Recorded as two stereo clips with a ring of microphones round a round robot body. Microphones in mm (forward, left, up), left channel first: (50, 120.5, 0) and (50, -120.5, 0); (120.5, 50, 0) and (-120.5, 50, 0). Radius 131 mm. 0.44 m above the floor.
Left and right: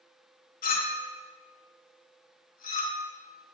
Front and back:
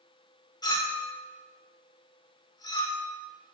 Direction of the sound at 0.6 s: 65° left.